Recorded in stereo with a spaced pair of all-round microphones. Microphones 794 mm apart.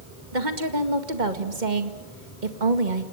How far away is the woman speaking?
About 2 m.